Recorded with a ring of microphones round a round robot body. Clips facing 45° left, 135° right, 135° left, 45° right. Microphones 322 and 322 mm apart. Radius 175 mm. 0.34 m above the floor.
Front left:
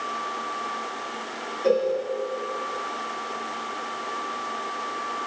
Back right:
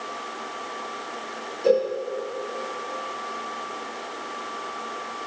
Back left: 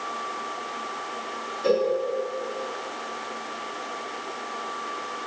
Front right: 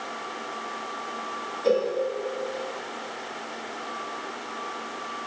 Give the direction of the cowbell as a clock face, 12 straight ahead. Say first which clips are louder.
Back right 1 dB, back left 1 dB; 6 o'clock.